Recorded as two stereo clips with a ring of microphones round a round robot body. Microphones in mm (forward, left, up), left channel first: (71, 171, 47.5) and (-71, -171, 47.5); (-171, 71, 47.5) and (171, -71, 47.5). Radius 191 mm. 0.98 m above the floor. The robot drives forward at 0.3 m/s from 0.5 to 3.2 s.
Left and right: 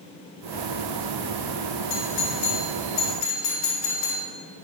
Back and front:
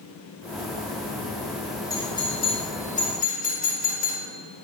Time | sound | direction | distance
1.9 | a doorbell | 80° left | 1.8 m